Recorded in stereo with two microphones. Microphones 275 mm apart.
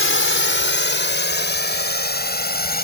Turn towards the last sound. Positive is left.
turn(degrees=35)  # may be behind; listen again after turning